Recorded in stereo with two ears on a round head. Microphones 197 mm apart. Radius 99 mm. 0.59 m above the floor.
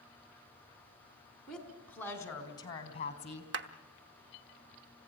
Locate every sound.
1.5 s a woman speaking: 5° left (ahead or behind), 4.5 m; by 3.4 s 40° left (ahead or behind), 3.5 m
3.5 s a clap: 55° right (ahead or behind), 1.1 m